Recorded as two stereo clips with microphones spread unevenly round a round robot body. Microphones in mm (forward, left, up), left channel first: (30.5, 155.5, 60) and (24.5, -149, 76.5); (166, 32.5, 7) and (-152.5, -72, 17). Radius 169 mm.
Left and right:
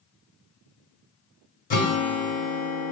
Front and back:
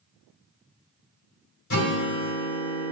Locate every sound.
1.7 s a guitar: 40° left, 1.7 m